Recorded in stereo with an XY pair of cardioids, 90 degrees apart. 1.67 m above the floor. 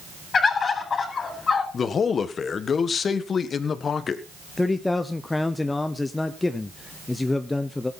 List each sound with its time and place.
0.3 s a bird: 50° left, 4 m
1.7 s a man speaking: 50° left, 1.4 m
4.6 s a man speaking: 20° left, 0.9 m